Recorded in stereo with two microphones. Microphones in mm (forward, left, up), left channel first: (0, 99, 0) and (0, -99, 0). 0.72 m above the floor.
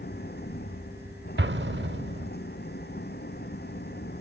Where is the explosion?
60° right (ahead or behind).